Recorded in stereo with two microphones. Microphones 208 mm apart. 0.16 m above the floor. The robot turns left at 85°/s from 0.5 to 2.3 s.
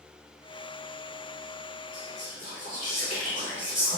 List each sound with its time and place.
1.9 s whispering: 90° left, 1.7 m; by 4.0 s 60° left, 1.7 m